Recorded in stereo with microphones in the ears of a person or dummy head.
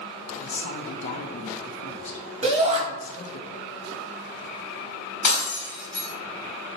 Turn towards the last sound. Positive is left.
turn(degrees=45)  # may be behind; listen again after turning